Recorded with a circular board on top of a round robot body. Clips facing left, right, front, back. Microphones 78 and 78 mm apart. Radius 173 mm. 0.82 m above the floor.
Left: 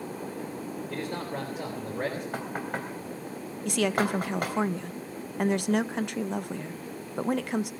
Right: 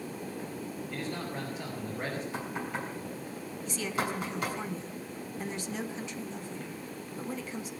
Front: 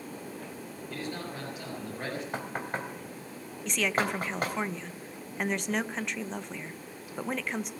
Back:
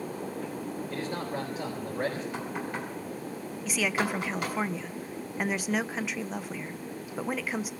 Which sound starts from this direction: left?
A woman speaking, at 3.6 s.